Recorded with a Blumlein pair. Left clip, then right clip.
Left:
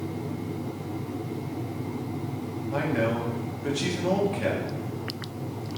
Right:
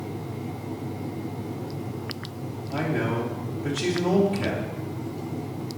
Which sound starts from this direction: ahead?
A man speaking, at 2.7 s.